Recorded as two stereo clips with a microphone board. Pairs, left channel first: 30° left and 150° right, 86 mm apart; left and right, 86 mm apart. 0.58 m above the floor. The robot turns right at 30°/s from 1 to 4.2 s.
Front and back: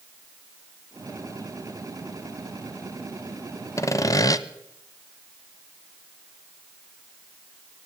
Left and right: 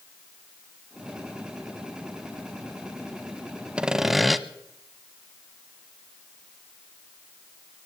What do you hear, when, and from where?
3.8 s sawing: 15° right, 0.6 m; by 4.4 s straight ahead, 0.6 m